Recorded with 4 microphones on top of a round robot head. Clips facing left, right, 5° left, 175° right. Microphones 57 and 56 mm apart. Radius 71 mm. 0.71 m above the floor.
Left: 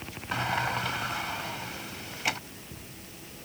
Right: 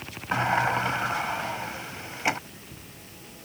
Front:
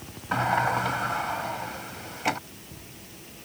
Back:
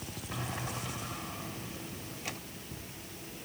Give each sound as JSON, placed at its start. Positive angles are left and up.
{"t": 0.3, "sound": "a sliding door", "azimuth_deg": -30}